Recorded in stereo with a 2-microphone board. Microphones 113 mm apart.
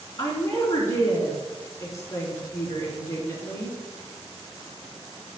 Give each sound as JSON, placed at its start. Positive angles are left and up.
{"t": 0.2, "sound": "a woman speaking", "side_deg": 25, "distance_m": 3.0}